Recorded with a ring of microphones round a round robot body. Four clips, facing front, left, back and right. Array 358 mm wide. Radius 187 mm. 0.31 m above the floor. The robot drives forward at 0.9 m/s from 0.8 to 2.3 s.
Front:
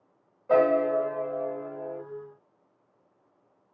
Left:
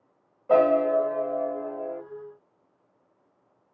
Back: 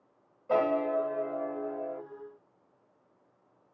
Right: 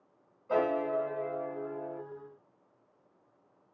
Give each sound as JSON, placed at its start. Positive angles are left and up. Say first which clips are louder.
{"t": 0.5, "sound": "a piano", "louder": "left 9 dB, front 5 dB", "azimuth_deg": 70, "distance_m": 1.3}